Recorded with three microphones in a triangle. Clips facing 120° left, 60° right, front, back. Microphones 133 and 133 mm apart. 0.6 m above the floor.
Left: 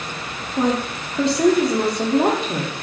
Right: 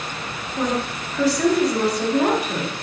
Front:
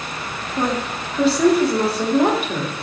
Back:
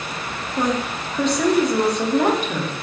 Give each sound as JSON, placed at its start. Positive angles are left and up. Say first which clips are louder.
{"t": 0.6, "sound": "a woman speaking", "louder": "left 3 dB, even", "azimuth_deg": 80, "distance_m": 0.7}